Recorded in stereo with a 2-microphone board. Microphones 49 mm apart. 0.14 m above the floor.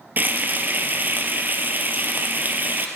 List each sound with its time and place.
0.2 s frying: 40° right (ahead or behind), 1.3 m